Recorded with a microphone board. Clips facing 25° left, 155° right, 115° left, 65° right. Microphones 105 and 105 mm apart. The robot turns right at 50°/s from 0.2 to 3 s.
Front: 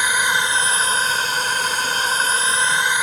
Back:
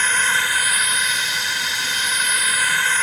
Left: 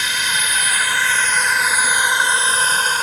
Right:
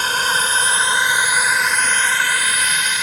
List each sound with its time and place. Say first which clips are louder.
0.0 s a drone: front 1 dB, right 4 dB; 50° right; by 3.0 s 90° left